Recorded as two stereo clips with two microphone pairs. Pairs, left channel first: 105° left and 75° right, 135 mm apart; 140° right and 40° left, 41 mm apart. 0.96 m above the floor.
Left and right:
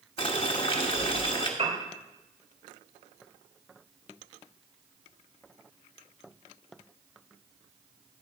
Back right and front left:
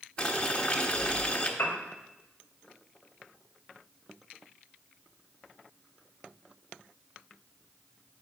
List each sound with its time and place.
0.2 s boiling: 150° left, 1.1 m
1.6 s a piano: 105° right, 1.9 m